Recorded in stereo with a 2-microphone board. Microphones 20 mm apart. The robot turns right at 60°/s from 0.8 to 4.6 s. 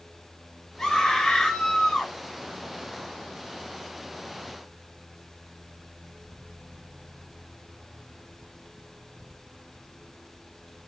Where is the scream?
45° left, 2.0 m; by 2.1 s 125° left, 2.0 m.